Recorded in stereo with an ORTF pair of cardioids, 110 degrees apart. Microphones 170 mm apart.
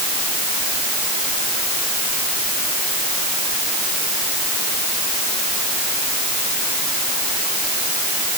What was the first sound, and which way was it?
Only background noise.